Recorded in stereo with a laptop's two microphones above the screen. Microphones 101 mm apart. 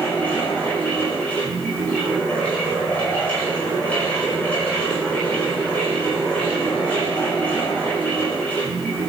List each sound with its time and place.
0.0 s a fan: 15° left (ahead or behind), 5.5 m